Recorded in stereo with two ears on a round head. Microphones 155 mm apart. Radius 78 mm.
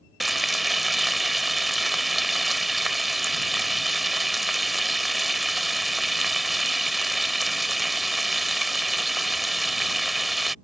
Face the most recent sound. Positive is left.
turn(degrees=0)  # may be behind; listen again after turning